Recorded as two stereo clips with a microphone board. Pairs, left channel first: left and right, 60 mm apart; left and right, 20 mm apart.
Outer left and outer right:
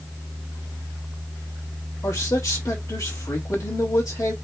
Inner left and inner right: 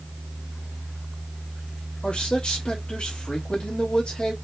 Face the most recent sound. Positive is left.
turn(degrees=75)  # may be behind; listen again after turning